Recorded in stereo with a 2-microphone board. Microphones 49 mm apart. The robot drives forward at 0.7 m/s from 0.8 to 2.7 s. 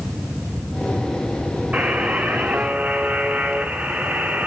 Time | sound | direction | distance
1.7 | a buzzer | 25° right (ahead or behind) | 1.3 m